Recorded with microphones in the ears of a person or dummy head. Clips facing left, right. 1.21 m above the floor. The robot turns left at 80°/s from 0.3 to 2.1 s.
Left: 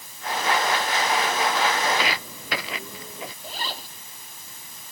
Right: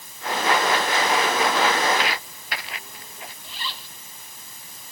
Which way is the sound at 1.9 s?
80° left.